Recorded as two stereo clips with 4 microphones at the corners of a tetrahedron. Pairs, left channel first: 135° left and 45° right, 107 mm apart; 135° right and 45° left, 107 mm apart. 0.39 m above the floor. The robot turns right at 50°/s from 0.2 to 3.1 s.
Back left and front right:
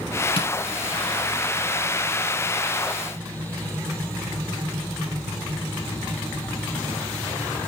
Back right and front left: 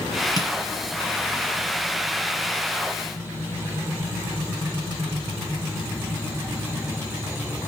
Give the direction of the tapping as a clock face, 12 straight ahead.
6 o'clock.